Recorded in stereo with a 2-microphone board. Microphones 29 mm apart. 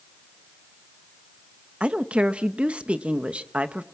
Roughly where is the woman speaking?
Right.